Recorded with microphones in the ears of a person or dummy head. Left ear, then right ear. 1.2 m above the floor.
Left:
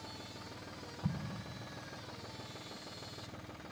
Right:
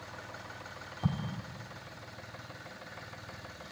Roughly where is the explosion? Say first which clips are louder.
Right 6 dB; right.